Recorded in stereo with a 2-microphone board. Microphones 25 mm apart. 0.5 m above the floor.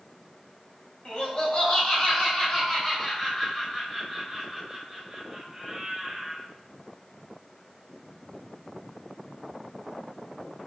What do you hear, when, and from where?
1.1 s laughter: 40° left (ahead or behind), 3.5 m; by 6.5 s 20° right (ahead or behind), 3 m